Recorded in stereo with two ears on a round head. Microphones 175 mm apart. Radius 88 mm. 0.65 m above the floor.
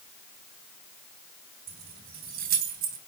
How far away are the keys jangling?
About 4 m.